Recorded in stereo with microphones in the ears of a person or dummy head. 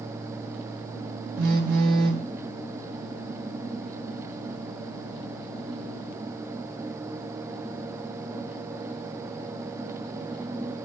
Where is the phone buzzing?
65° right (ahead or behind), 1.1 m.